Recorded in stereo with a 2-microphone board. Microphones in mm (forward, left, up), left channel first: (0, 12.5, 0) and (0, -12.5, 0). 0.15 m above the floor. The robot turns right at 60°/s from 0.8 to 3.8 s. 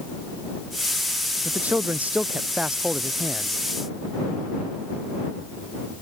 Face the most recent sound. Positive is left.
turn(degrees=30)